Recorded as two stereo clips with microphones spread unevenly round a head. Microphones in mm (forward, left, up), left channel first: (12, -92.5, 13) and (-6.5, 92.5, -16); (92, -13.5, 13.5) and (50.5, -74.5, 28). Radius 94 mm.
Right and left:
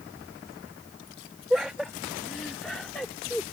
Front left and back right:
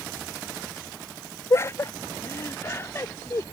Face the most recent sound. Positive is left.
turn(degrees=0)